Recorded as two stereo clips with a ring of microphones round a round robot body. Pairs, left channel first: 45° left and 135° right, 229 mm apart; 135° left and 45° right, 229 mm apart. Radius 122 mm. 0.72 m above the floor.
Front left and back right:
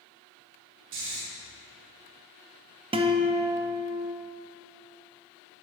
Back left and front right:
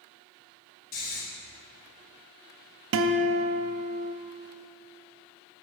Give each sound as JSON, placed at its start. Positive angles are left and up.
{"t": 0.9, "sound": "snoring", "azimuth_deg": -170, "distance_m": 1.6}
{"t": 2.9, "sound": "a guitar", "azimuth_deg": -70, "distance_m": 0.5}